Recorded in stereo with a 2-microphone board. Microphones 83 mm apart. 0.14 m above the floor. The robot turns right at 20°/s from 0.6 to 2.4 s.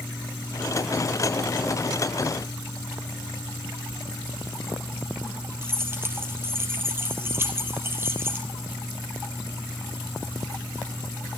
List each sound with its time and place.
5.6 s keys jangling: 25° right (ahead or behind), 2.5 m